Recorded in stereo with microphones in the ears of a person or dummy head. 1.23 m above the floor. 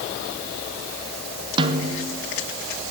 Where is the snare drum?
30° right (ahead or behind), 1.0 m.